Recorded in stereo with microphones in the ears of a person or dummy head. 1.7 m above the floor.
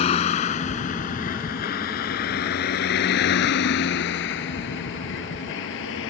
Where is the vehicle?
35° left (ahead or behind); by 6.1 s 65° left (ahead or behind).